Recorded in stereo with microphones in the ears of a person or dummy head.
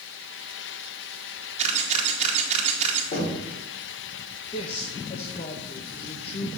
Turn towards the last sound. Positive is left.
turn(degrees=35)  # may be behind; listen again after turning